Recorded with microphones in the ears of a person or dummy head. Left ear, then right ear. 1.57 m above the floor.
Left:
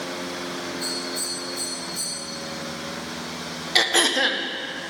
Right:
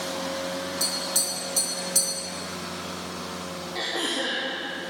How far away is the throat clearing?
About 0.7 m.